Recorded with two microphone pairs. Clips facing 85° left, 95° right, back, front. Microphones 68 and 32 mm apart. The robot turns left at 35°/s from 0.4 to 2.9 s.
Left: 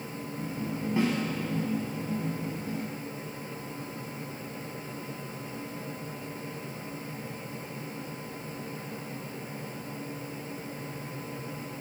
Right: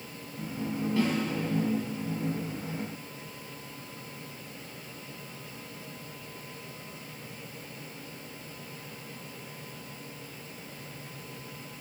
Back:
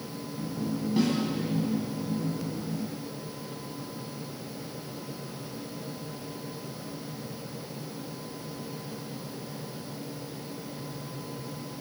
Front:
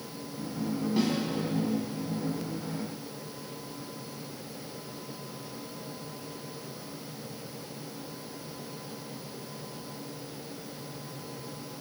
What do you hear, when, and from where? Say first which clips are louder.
1.0 s a snare drum: left 1 dB, back 2 dB; 85° left, 1.4 m; by 1.2 s 75° left, 1.4 m